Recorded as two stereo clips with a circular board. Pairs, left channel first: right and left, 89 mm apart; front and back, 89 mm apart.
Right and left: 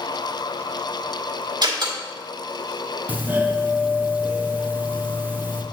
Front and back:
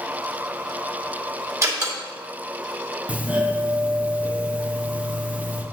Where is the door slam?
125° left, 2.5 m.